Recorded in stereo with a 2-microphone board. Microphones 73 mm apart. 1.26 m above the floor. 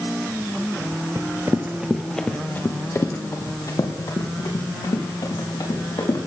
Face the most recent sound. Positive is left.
turn(degrees=65)  # may be behind; listen again after turning